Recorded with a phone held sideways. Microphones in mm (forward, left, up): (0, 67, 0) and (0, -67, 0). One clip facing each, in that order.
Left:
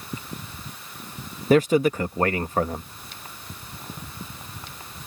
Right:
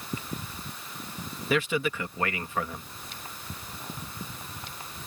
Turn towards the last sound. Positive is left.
turn(degrees=40)  # may be behind; listen again after turning